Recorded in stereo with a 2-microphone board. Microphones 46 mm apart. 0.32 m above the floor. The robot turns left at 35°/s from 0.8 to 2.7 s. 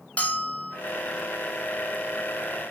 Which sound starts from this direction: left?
A bell, at 0.2 s.